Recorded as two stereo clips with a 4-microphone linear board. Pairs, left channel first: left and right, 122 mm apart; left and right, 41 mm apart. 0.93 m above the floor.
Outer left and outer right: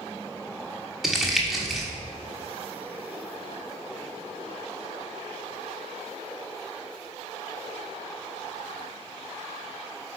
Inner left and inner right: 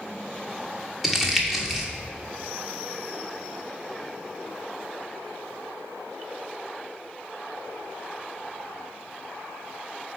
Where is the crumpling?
Centre (ahead or behind), 1.3 m.